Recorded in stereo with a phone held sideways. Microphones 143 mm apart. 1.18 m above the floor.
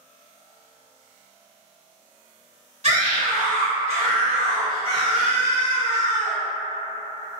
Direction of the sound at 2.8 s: 50° right (ahead or behind).